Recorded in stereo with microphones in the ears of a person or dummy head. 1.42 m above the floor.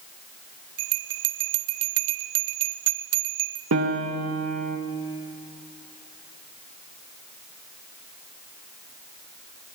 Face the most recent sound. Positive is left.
turn(degrees=-90)